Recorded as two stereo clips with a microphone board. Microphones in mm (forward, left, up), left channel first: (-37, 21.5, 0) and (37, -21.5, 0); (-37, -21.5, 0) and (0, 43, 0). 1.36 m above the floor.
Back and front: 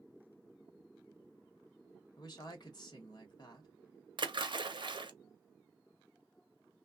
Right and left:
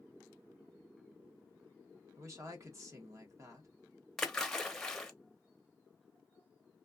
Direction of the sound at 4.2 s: 35° right.